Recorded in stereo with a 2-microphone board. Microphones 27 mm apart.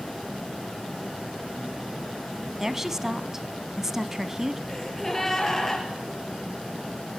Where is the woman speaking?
15° right (ahead or behind), 1.0 m.